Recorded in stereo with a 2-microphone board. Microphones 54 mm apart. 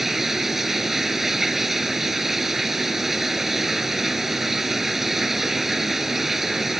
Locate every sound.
0.0 s running water: 5° right (ahead or behind)